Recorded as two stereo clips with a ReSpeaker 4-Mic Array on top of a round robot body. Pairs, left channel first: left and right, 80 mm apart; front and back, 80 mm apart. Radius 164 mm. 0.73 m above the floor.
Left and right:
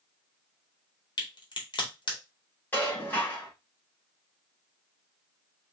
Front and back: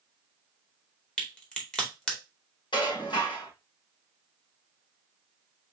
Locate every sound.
1.2 s a crack: 75° left, 2 m
2.7 s dishes clattering: 25° left, 3 m